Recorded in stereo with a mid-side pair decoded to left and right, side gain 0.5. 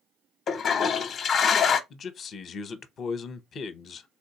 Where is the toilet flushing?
55° left, 0.6 m.